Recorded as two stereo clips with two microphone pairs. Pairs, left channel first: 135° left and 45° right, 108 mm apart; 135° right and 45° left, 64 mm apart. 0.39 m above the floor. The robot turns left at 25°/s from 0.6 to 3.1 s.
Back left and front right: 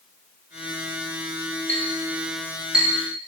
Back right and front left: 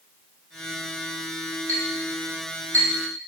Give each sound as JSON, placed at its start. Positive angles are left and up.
{"t": 1.7, "sound": "a clink", "azimuth_deg": 65, "distance_m": 1.6}